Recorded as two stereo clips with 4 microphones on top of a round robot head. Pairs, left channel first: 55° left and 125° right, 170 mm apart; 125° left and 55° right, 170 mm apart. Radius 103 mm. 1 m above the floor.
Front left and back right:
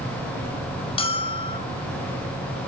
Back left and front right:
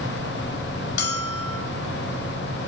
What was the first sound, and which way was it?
A bell, 110° left.